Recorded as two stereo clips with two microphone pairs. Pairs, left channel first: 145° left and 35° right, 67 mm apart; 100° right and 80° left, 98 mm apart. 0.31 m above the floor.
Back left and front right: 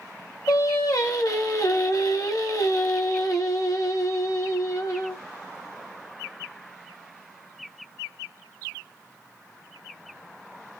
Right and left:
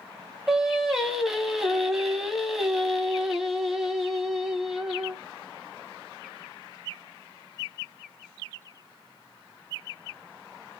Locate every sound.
0.5 s singing: 165° left, 0.8 m